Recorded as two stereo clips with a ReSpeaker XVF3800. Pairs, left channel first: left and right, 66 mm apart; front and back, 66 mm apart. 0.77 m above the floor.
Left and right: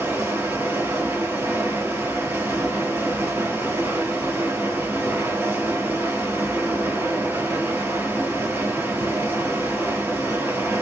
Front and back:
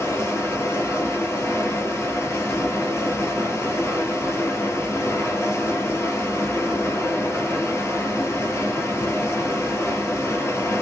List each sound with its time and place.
0.0 s running water: 40° right, 1.3 m